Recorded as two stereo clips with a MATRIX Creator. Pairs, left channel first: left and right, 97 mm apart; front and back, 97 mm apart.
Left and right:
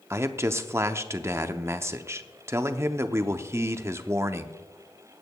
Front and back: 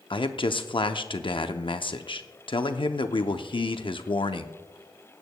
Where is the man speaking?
25° right, 0.6 m.